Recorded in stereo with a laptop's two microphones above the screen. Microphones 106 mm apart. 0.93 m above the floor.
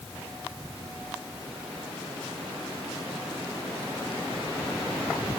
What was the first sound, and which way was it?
Only background noise.